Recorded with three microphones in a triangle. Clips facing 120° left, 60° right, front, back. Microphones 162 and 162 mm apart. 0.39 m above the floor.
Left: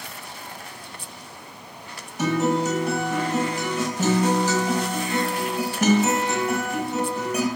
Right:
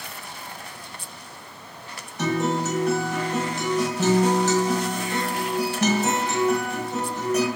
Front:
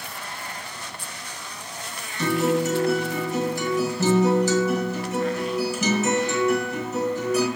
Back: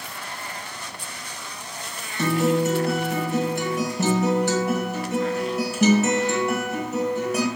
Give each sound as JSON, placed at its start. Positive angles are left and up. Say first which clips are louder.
{"t": 2.2, "sound": "a guitar", "louder": "left 2 dB, back 1 dB", "azimuth_deg": -160, "distance_m": 1.4}